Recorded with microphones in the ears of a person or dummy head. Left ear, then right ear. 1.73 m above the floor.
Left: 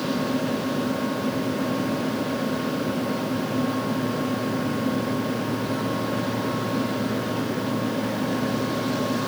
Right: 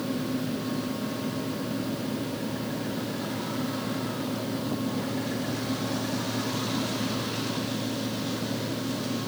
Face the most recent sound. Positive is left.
No sound to turn to.